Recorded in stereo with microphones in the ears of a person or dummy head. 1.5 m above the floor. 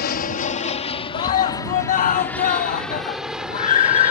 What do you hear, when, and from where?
0.0 s an aircraft: 45° left (ahead or behind); by 4.1 s 10° right (ahead or behind)
1.1 s a scream: 40° left (ahead or behind)